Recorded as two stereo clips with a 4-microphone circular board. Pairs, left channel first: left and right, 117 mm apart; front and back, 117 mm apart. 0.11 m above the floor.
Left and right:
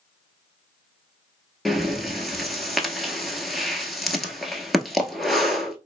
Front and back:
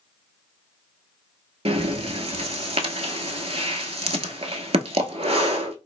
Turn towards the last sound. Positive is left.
turn(degrees=180)